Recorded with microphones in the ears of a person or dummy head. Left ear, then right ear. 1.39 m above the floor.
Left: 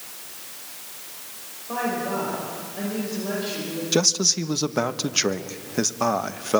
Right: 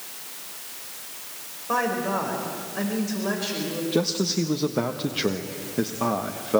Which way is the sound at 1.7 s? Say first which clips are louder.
Right 2 dB; 45° right (ahead or behind).